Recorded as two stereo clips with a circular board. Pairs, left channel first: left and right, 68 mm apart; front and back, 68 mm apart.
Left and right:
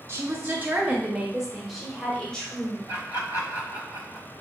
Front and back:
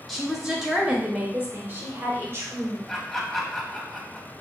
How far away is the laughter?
About 1.6 m.